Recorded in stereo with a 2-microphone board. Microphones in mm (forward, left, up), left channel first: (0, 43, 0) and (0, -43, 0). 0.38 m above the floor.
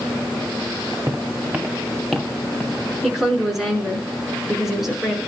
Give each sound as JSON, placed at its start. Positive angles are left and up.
{"t": 1.1, "sound": "footsteps", "side_deg": -40, "distance_m": 1.3}
{"t": 3.0, "sound": "a woman speaking", "side_deg": 0, "distance_m": 4.5}